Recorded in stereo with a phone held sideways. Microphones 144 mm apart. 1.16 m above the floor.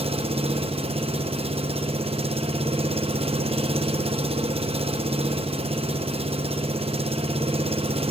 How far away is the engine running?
About 0.8 m.